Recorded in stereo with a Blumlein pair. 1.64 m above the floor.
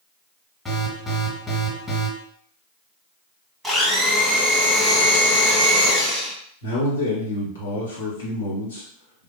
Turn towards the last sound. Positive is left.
turn(degrees=70)